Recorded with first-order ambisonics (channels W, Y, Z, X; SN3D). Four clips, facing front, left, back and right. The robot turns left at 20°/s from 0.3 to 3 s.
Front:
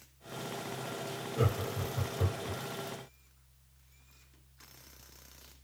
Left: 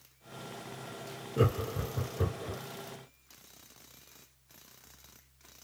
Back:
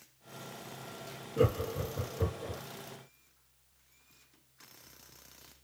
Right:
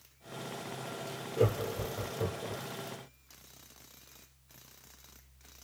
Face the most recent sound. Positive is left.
turn(degrees=65)